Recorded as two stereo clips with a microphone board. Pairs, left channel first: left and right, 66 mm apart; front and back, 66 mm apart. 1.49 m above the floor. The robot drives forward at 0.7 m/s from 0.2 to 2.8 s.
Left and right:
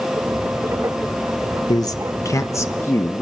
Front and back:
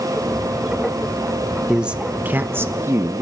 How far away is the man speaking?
About 1.1 m.